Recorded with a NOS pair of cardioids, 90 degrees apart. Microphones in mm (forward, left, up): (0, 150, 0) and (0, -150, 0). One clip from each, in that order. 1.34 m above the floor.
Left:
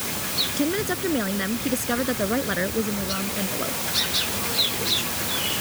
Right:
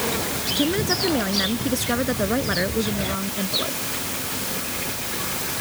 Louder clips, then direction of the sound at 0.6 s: Right 3 dB; 10° right.